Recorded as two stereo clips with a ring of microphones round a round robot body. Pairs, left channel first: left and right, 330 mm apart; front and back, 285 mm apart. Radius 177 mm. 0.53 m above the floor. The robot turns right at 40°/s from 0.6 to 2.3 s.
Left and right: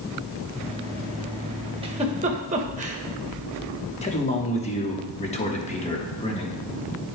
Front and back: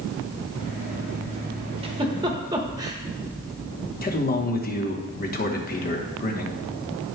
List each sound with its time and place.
1.8 s a giggle: 140° right, 1.0 m; by 3.0 s 125° right, 1.0 m
4.0 s a man speaking: 35° left, 1.1 m